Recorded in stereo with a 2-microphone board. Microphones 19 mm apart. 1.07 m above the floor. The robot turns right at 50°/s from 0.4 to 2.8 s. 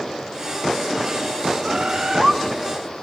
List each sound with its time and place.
1.6 s a bird: 60° right, 1.9 m; by 2.4 s 25° right, 1.9 m